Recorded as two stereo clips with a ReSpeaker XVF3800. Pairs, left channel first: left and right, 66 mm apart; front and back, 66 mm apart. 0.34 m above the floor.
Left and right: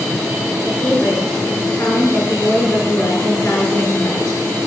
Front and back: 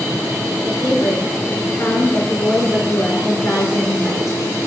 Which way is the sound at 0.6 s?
35° left.